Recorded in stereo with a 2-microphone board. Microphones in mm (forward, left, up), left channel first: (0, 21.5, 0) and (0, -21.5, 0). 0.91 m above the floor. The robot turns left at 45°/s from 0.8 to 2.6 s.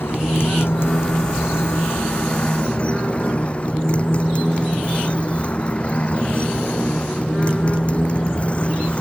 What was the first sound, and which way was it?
A motorcycle, 110° left.